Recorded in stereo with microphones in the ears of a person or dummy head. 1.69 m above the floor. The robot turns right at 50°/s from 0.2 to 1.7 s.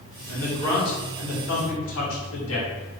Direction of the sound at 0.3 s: 10° left.